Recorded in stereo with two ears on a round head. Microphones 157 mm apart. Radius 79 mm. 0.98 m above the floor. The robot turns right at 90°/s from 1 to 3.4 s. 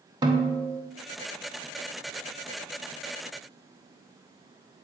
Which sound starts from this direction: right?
A snare drum, at 0.2 s.